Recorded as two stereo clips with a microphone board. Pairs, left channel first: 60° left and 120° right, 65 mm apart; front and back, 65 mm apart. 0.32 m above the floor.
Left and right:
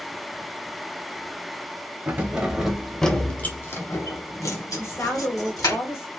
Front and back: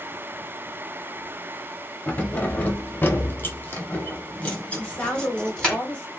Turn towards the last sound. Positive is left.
turn(degrees=60)